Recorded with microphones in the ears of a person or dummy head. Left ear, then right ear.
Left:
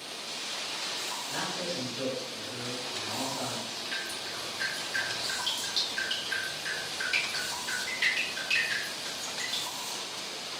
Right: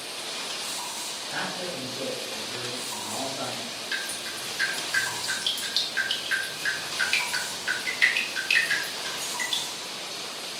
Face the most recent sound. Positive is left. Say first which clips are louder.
# right 5 dB
turn(degrees=-55)  # may be behind; listen again after turning